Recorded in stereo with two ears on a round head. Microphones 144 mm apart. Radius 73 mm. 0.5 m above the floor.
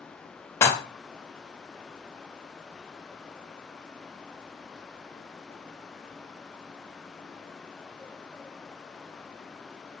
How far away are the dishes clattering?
About 0.5 m.